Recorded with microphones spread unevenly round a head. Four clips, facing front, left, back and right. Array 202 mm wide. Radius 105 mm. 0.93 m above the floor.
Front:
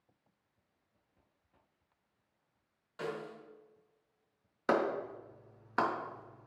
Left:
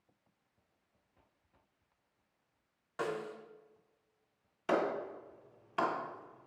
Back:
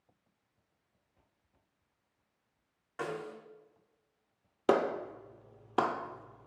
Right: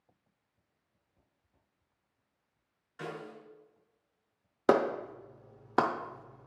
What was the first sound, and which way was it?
A snare drum, 120° left.